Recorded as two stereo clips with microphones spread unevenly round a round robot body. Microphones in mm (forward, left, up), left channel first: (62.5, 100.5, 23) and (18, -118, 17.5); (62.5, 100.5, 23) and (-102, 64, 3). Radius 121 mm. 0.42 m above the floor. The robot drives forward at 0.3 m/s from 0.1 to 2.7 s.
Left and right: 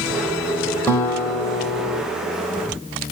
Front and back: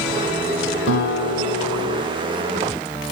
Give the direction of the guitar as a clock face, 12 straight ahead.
12 o'clock.